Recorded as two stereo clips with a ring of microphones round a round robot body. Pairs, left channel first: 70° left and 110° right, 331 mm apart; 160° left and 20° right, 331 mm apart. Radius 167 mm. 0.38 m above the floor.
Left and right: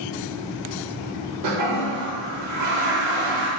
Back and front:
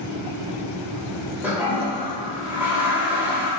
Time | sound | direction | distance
1.4 | a toilet flushing | 105° right | 0.9 m